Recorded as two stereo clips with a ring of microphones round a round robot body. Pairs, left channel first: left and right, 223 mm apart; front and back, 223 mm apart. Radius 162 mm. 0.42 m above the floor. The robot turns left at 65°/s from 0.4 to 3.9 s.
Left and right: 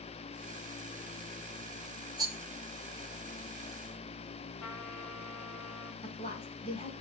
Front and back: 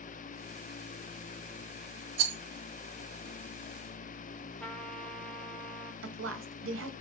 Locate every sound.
2.2 s a rattle: 165° right, 1.9 m; by 2.4 s 175° right, 1.9 m
4.6 s a trumpet: 85° left, 2.5 m
6.0 s a woman speaking: 160° left, 2.5 m